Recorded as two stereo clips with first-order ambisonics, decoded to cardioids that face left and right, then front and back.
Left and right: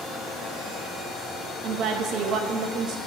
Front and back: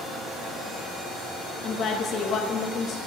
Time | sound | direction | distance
1.6 | a woman speaking | 55° right | 0.7 m